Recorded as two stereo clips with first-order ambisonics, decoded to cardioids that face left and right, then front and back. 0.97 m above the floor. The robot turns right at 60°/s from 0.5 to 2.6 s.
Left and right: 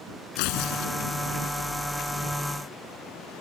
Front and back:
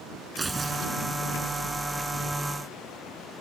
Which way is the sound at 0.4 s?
105° left.